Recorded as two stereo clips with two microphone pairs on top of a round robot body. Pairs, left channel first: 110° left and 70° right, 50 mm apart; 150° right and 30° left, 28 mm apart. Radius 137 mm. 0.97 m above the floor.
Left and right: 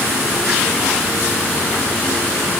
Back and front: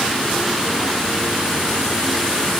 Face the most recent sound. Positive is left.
No sound to turn to.